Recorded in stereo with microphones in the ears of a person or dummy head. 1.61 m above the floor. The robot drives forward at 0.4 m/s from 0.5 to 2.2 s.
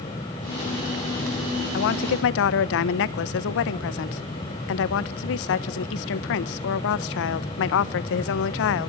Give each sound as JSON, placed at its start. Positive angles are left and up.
{"t": 1.7, "sound": "a woman speaking", "side_deg": 65, "distance_m": 1.2}